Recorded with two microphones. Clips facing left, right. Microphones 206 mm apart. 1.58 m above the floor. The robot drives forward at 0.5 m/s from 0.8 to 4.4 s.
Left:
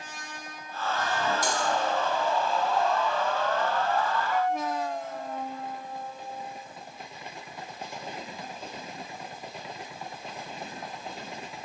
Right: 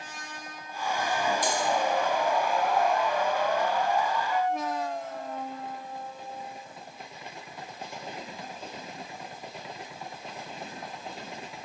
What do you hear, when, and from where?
1.4 s cutlery clinking: 45° left (ahead or behind), 1.9 m